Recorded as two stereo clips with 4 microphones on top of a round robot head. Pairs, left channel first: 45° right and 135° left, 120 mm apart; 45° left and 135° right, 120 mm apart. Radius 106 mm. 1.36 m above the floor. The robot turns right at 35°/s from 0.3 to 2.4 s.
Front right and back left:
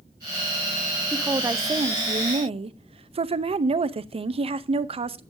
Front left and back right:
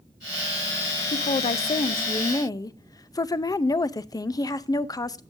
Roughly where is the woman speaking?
Ahead left.